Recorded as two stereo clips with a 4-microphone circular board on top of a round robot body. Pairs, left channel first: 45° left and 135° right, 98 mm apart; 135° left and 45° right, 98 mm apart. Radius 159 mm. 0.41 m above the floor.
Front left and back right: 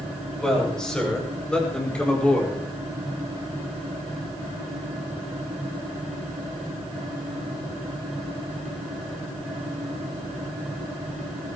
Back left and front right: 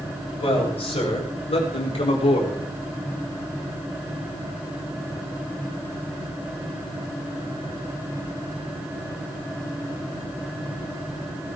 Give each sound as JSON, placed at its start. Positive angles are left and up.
{"t": 0.4, "sound": "a man speaking", "azimuth_deg": 130, "distance_m": 8.5}